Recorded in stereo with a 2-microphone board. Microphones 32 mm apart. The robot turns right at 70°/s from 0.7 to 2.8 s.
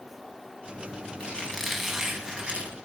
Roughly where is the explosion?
I don't hear an explosion.